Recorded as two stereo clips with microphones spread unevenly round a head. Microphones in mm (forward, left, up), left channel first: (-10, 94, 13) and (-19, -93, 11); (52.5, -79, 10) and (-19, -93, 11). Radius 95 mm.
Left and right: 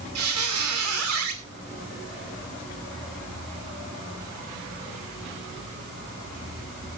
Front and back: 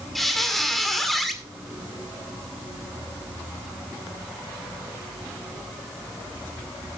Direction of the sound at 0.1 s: 75° right.